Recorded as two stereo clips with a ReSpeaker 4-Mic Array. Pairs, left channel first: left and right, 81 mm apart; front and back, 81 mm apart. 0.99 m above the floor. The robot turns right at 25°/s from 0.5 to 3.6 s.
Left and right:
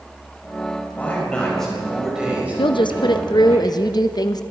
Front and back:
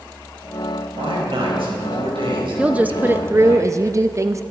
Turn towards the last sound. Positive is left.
turn(degrees=125)